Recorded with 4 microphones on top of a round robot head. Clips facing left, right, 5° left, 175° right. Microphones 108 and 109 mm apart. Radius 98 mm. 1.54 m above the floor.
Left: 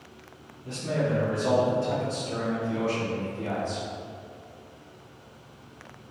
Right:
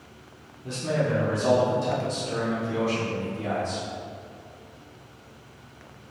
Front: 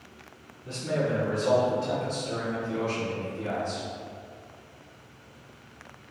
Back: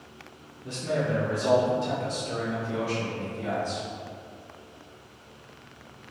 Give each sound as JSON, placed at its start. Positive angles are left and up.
{"t": 0.6, "sound": "a man speaking", "azimuth_deg": -125, "distance_m": 1.8}